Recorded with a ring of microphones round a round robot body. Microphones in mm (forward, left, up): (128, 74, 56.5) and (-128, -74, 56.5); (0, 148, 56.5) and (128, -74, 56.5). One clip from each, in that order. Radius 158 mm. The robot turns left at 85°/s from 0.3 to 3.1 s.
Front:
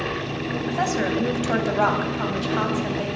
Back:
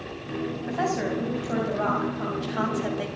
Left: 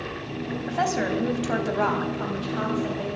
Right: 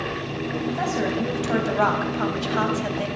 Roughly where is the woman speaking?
Left.